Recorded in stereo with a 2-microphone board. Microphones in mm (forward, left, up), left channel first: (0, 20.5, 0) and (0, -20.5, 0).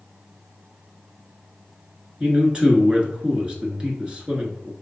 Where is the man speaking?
25° right (ahead or behind), 1.1 m.